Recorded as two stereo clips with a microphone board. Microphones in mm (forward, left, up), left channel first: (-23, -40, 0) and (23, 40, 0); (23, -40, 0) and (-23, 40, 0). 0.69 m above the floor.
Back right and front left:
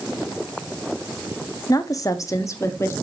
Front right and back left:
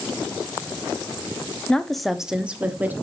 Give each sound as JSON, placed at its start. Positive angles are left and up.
{"t": 1.7, "sound": "a woman speaking", "azimuth_deg": -135, "distance_m": 1.0}